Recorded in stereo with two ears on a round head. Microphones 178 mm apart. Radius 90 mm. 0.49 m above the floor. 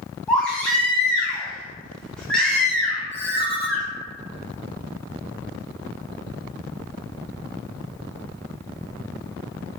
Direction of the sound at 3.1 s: 30° left (ahead or behind).